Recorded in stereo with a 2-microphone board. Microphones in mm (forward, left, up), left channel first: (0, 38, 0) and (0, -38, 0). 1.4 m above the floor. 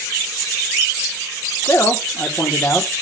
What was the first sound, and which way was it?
A man speaking, 35° left (ahead or behind).